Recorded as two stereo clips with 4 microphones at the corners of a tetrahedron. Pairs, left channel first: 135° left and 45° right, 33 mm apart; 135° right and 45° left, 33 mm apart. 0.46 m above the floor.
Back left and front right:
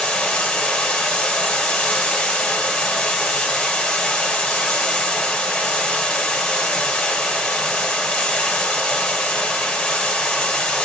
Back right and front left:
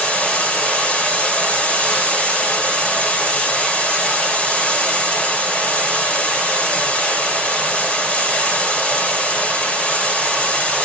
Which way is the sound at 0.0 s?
160° right.